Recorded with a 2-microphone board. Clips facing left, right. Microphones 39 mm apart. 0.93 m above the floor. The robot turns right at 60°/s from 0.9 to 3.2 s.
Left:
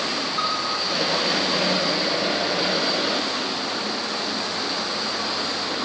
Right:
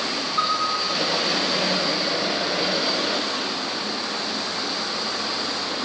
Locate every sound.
0.4 s a piano: 30° right (ahead or behind), 6 m